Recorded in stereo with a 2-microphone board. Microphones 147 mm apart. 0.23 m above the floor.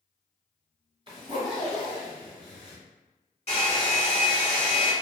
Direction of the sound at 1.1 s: 30° right (ahead or behind).